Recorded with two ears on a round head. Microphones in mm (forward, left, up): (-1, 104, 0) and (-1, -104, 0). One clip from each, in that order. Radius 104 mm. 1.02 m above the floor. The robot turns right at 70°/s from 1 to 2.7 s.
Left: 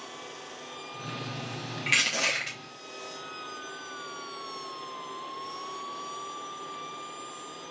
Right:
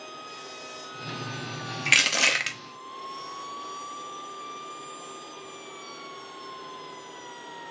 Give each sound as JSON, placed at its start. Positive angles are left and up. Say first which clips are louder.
{"t": 1.9, "sound": "crushing", "louder": "right 5 dB", "azimuth_deg": -160, "distance_m": 0.9}